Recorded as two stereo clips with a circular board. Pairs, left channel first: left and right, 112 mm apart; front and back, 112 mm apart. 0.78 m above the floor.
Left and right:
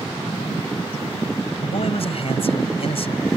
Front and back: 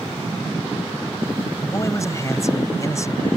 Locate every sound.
1.6 s a man speaking: 60° left